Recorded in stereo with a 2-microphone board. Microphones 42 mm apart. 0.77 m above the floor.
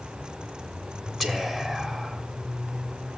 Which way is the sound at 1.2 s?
5° left (ahead or behind).